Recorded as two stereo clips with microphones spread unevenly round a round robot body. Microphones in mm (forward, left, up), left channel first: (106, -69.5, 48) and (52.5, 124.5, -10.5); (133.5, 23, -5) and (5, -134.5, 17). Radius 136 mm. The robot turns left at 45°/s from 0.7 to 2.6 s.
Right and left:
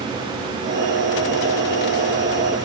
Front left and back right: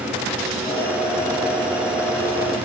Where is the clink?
I don't hear a clink.